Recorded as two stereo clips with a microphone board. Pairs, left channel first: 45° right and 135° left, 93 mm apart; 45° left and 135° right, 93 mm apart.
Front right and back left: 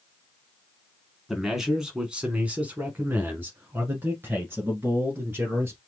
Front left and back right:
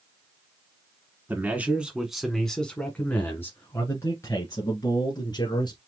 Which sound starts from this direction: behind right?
A man speaking, at 1.3 s.